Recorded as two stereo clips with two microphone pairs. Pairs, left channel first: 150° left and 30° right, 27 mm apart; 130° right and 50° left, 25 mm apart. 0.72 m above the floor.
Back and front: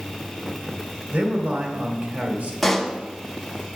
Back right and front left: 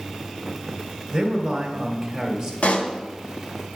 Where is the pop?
120° right, 1.1 m.